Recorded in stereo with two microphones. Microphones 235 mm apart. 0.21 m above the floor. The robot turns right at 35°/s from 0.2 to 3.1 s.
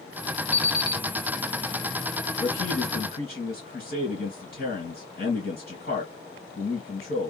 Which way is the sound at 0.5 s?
30° left (ahead or behind).